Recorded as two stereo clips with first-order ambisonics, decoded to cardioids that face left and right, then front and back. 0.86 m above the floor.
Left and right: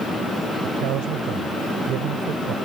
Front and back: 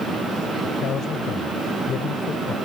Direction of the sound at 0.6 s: 55° right.